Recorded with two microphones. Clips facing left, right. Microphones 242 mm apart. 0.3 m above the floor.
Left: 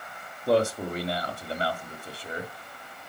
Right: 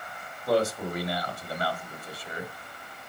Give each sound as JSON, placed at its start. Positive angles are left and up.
{"t": 0.5, "sound": "a man speaking", "side_deg": 30, "distance_m": 1.4}